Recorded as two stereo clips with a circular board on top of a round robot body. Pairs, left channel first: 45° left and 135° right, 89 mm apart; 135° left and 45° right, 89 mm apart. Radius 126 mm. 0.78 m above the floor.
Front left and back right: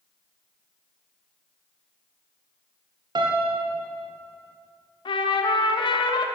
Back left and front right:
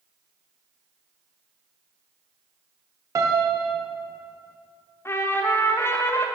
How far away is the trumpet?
About 0.7 m.